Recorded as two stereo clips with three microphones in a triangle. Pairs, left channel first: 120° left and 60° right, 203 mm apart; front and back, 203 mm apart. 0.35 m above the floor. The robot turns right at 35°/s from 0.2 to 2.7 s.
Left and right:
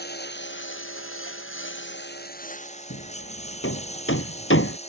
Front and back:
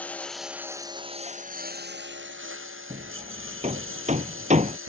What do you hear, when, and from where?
0.0 s a lawn mower: 85° left; by 4.9 s straight behind
2.9 s hammering: 125° left